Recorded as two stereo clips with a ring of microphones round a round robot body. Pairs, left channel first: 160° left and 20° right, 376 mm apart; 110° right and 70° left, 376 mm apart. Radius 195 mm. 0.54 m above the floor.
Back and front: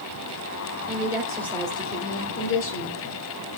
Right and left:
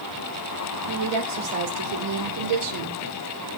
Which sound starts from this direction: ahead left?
A woman speaking, at 0.9 s.